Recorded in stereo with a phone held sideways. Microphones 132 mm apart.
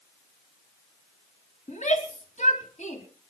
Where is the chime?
I don't hear a chime.